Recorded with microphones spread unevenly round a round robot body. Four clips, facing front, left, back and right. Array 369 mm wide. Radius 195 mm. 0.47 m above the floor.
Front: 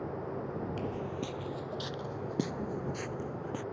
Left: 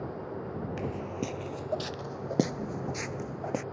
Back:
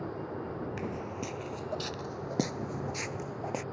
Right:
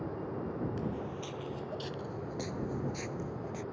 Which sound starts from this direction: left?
Footsteps, at 0.8 s.